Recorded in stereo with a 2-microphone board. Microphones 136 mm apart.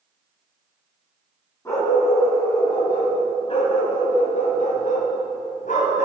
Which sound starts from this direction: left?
A dog barking, at 1.6 s.